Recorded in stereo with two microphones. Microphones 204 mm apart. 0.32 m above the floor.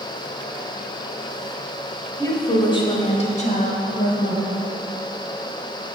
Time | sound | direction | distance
2.2 | a woman speaking | 15° left (ahead or behind) | 2.0 m